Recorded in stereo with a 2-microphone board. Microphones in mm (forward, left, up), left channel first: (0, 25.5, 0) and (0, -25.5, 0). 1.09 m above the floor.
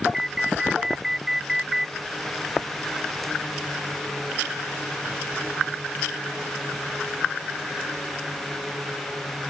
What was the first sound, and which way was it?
An alarm, 10° right (ahead or behind).